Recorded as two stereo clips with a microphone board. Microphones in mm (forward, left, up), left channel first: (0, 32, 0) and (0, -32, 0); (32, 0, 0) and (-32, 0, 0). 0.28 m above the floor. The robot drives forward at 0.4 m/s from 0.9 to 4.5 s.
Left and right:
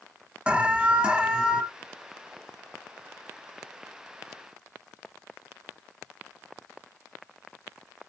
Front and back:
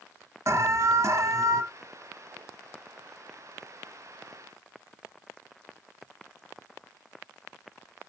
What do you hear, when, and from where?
0.5 s an alarm: 160° right, 1.0 m; by 1.6 s 165° right, 1.2 m